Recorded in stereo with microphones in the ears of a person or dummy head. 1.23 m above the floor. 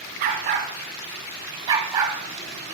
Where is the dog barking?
40° right (ahead or behind), 1.2 m; by 2.2 s 15° right (ahead or behind), 1.7 m.